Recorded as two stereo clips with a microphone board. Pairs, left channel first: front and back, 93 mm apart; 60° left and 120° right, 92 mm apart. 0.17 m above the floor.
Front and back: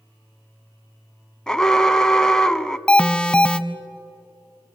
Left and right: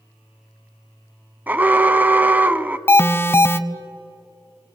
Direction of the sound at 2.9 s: 70° left.